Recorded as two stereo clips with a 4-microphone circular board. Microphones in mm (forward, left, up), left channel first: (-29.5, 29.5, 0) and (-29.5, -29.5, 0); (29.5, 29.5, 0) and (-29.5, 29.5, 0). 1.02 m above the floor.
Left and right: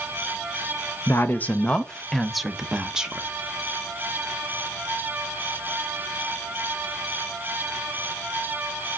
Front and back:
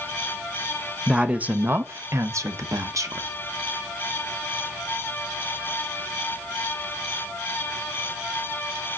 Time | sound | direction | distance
1.1 | a woman speaking | 105° left | 0.7 m